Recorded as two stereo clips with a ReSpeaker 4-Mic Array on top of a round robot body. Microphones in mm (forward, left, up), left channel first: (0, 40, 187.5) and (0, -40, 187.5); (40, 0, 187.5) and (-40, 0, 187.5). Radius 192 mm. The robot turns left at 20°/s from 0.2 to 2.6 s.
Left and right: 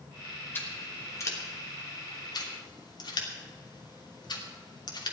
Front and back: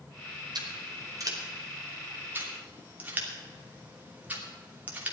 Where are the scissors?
150° left, 3 m; by 5.1 s 110° left, 3 m.